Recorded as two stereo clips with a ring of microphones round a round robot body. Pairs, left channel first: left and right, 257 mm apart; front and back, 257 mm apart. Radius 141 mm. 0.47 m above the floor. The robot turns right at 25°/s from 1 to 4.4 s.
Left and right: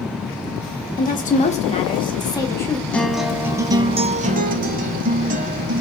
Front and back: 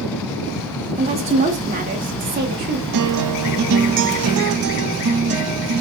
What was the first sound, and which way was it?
A woman speaking, 125° left.